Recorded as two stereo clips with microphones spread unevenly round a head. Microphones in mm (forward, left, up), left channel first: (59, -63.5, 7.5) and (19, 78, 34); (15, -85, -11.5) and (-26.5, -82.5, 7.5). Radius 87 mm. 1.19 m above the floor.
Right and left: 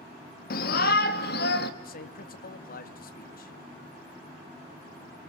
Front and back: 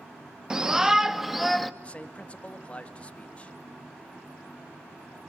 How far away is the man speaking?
About 2 m.